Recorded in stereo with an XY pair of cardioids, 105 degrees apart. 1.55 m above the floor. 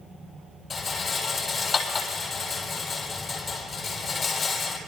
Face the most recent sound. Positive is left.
turn(degrees=45)